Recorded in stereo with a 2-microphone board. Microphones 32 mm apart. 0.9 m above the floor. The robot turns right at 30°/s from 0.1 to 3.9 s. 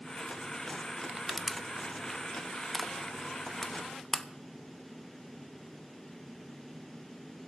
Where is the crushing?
10° right (ahead or behind), 0.6 m; by 4.3 s 20° left (ahead or behind), 0.6 m.